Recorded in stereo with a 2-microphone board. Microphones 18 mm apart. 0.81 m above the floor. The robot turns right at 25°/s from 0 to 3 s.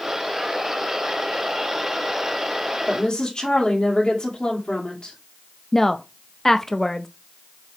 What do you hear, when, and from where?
2.9 s a woman speaking: 45° left (ahead or behind), 2 m; by 5.2 s 50° left (ahead or behind), 2 m
5.7 s a woman speaking: 20° left (ahead or behind), 0.5 m